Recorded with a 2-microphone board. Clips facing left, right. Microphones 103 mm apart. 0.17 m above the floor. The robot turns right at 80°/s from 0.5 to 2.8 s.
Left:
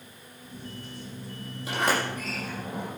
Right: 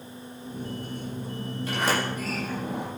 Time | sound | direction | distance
1.7 | a sliding door | 15° left (ahead or behind) | 5.5 m